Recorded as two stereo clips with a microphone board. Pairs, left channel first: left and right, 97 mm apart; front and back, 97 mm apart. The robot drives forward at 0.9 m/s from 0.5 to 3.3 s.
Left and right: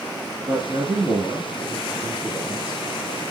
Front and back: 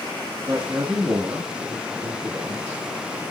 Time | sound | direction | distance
0.5 | a man speaking | 130° right | 1.7 m